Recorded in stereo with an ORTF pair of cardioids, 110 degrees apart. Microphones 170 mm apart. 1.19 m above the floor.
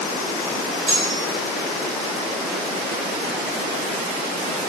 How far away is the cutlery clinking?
About 2.0 m.